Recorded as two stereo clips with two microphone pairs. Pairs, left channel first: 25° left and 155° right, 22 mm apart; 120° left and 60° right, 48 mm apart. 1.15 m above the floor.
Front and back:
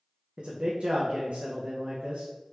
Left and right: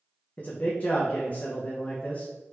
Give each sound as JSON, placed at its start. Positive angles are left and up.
{"t": 0.4, "sound": "a man speaking", "azimuth_deg": 175, "distance_m": 0.6}